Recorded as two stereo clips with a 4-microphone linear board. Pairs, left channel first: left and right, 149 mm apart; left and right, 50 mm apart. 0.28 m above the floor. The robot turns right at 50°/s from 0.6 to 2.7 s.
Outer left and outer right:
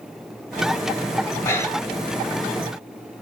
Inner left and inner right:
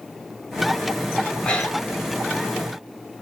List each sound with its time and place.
1.4 s breathing: 20° left (ahead or behind), 1.0 m; by 2.0 s 15° left (ahead or behind), 1.0 m